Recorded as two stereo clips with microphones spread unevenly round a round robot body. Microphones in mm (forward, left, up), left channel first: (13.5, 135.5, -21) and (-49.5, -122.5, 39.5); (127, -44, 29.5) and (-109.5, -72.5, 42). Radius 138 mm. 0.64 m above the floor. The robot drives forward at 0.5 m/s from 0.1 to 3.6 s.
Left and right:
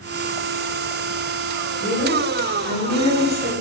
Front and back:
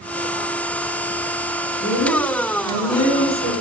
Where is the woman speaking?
20° left, 1.7 m; by 3.5 s 35° left, 1.1 m.